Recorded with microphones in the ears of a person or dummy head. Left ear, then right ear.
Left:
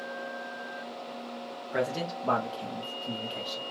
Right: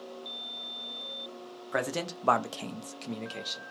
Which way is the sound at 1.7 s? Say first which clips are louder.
Left 1 dB; 40° right (ahead or behind).